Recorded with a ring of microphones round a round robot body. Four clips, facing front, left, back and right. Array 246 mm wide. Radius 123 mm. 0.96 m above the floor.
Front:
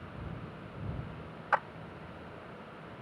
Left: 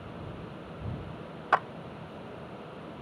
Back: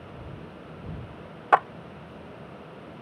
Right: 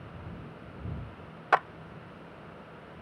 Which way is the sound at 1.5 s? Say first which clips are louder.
Right 1 dB, back 10 dB; 165° right.